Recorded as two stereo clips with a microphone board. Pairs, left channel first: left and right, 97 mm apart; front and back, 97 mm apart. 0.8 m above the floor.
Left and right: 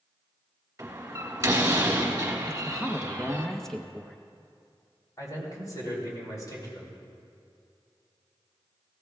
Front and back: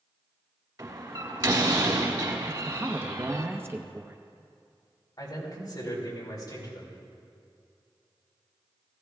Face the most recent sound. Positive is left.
turn(degrees=40)